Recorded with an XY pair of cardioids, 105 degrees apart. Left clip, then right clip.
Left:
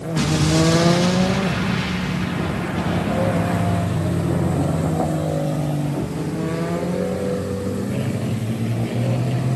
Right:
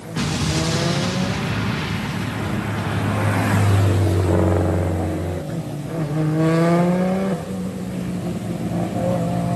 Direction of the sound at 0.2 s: 15° left.